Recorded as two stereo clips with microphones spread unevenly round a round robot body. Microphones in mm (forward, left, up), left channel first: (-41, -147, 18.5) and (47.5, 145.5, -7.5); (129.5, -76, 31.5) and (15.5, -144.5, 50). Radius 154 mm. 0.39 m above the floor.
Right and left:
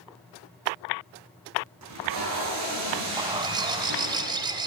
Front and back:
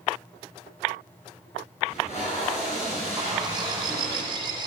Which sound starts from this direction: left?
Tape being pulled, at 1.8 s.